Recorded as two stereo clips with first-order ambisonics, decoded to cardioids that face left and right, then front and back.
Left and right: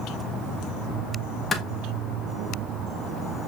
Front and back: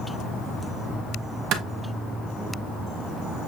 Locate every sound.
1.5 s a clap: 160° left, 0.8 m